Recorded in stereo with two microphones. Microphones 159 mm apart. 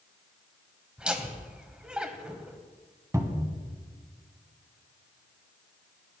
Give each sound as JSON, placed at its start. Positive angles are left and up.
{"t": 1.0, "sound": "laughter", "side_deg": -5, "distance_m": 1.0}
{"t": 3.1, "sound": "a cupboard door", "side_deg": -20, "distance_m": 0.9}